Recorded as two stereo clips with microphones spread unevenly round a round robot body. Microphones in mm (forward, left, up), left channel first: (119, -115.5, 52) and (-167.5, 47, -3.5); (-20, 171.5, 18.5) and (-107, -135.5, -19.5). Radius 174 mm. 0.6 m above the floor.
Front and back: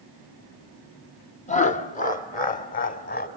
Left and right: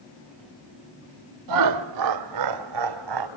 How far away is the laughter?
About 1.5 m.